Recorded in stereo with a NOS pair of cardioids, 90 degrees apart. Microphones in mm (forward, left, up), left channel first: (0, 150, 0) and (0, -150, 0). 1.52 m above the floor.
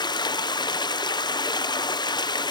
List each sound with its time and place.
0.0 s running water: 15° left, 0.8 m